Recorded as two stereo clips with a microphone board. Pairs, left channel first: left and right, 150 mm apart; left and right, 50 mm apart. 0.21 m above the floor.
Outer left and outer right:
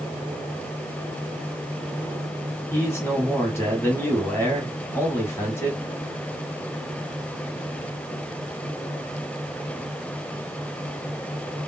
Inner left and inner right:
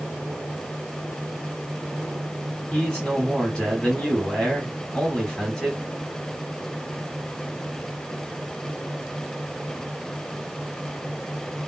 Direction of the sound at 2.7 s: 20° left (ahead or behind).